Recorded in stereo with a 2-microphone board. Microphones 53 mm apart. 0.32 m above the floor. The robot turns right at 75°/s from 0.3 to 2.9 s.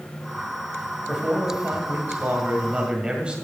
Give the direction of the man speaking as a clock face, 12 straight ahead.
6 o'clock.